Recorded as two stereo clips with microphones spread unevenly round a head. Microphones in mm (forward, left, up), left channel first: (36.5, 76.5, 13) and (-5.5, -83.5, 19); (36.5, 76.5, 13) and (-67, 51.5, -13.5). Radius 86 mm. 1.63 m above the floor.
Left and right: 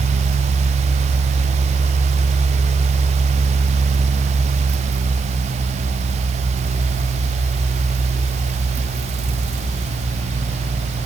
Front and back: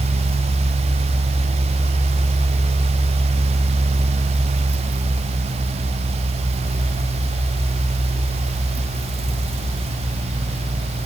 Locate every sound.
Only background noise.